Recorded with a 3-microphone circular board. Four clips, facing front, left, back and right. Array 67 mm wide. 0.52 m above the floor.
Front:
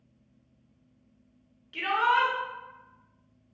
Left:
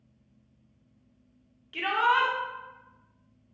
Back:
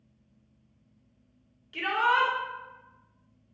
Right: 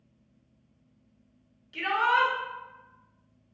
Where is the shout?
75° left, 0.7 m.